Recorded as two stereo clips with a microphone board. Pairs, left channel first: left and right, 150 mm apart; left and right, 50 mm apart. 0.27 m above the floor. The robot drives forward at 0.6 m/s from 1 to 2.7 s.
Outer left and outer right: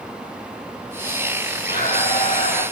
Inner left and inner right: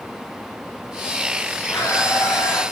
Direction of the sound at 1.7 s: 80° left.